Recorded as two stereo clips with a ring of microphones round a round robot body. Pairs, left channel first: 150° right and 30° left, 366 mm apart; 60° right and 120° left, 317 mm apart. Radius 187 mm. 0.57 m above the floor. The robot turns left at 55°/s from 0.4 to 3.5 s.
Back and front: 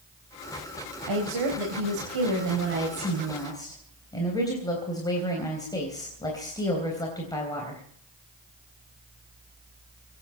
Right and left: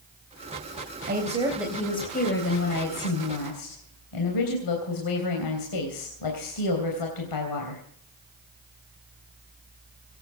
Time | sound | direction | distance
1.1 | a woman speaking | 65° left | 3.5 m